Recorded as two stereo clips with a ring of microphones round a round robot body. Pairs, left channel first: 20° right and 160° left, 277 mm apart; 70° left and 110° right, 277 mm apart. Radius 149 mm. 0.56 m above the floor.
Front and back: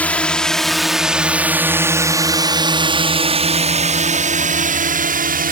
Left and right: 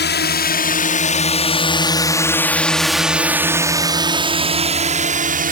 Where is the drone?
60° left; by 5.5 s 160° right.